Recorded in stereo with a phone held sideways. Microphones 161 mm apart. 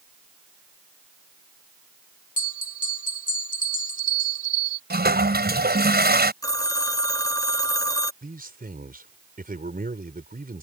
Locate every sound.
2.4 s a bell: 55° left (ahead or behind)
4.9 s a toilet flushing: 80° right
6.4 s a phone ringing: 20° left (ahead or behind)
8.2 s a man speaking: 65° right (ahead or behind)